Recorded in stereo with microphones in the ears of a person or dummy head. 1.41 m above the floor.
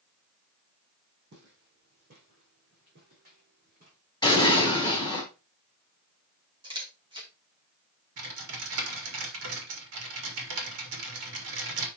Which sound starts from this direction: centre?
An explosion, at 4.2 s.